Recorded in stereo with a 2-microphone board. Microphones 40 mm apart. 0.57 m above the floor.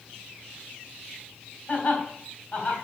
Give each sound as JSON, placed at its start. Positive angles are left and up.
{"t": 1.7, "sound": "laughter", "side_deg": 35, "distance_m": 3.0}